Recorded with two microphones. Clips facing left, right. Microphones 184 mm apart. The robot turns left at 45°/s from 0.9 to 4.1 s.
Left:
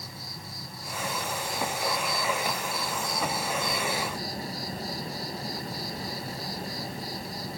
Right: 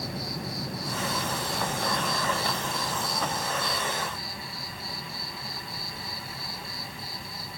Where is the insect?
80° right, 1.3 m; by 7.6 s 140° left, 1.3 m.